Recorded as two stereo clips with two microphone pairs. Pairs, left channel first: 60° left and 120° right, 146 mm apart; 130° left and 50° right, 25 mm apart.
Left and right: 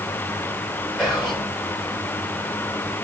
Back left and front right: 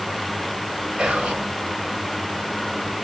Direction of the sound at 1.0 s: 35° right.